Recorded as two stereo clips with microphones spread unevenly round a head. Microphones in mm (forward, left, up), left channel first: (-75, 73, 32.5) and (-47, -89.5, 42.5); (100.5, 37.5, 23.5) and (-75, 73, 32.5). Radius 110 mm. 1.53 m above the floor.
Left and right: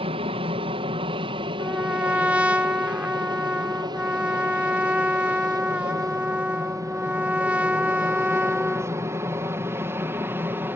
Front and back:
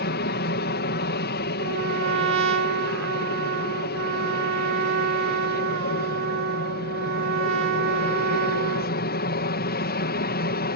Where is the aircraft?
20° right; by 10.8 s straight ahead.